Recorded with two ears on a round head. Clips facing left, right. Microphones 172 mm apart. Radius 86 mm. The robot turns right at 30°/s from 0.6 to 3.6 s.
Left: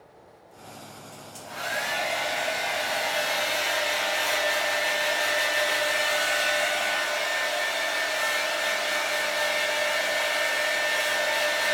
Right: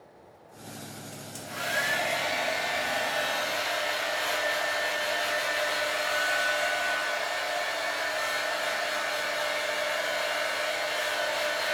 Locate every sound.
1.1 s a hair dryer: 30° right, 0.8 m; by 11.8 s 45° left, 0.8 m